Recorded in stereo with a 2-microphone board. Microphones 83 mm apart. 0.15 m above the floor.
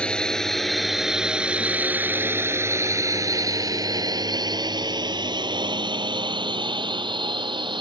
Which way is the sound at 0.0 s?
15° left (ahead or behind).